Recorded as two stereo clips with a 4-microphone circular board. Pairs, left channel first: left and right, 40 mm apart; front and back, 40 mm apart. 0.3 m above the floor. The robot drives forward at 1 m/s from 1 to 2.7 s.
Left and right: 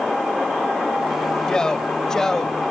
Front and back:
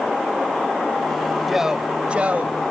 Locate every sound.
1.5 s a man speaking: 100° left, 1.4 m; by 2.6 s 160° left, 1.8 m